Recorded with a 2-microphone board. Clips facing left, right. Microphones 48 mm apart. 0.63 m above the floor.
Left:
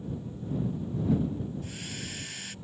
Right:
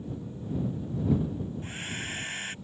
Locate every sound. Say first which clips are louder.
1.6 s a hair dryer: right 3 dB; 30° right (ahead or behind)